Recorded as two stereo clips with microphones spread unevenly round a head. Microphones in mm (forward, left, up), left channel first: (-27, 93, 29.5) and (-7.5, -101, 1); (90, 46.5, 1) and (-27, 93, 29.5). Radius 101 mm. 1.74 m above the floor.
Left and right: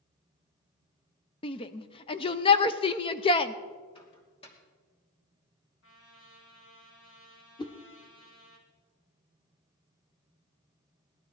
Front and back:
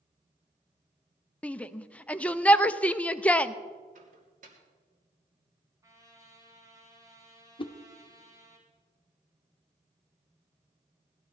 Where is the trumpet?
100° left, 4 m.